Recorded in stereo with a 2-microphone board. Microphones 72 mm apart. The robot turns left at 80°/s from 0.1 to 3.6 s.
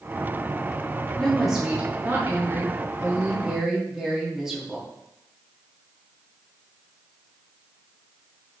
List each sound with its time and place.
1.2 s a woman speaking: 20° left, 1.0 m; by 4.9 s 170° right, 1.0 m